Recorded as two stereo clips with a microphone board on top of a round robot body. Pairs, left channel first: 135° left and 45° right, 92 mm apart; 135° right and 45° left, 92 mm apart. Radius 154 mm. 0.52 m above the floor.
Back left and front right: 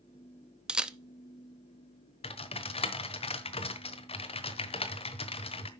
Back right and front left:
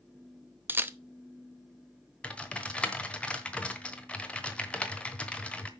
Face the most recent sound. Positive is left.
turn(degrees=145)